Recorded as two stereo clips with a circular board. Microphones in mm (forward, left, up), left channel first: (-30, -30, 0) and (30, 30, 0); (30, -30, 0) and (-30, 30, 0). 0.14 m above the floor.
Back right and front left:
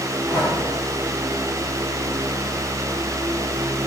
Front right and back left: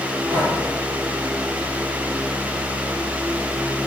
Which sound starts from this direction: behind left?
Breathing, at 0.3 s.